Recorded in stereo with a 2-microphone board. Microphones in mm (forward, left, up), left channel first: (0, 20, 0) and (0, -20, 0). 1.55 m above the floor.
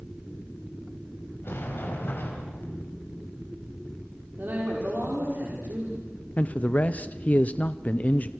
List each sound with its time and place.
1.4 s a sliding door: 65° left (ahead or behind), 5.5 m
4.4 s a man speaking: 65° right (ahead or behind), 5 m
6.4 s a man speaking: 40° left (ahead or behind), 0.8 m